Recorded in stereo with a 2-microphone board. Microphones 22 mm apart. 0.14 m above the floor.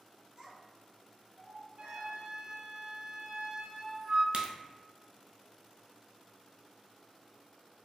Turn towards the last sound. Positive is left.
turn(degrees=-50)  # may be behind; listen again after turning